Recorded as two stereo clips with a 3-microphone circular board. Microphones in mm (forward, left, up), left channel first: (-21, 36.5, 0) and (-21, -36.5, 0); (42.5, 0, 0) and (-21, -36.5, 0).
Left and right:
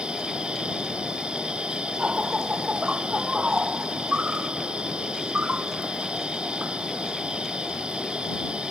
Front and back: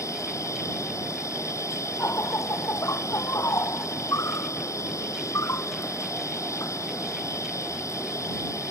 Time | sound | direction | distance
0.0 | an insect | 15° right | ?